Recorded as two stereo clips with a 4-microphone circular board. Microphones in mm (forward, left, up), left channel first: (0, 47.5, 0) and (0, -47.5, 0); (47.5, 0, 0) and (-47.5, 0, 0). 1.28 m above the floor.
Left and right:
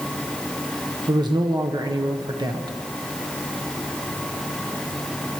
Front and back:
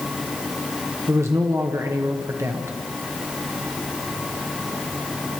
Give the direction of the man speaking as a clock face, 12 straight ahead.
4 o'clock.